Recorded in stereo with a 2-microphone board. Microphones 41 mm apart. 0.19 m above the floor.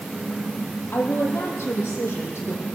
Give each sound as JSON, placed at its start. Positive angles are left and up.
{"t": 0.9, "sound": "a woman speaking", "side_deg": 75, "distance_m": 6.0}